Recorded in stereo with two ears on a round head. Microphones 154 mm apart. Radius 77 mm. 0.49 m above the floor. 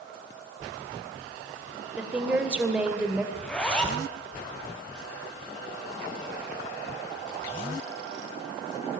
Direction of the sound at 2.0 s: 5° right (ahead or behind).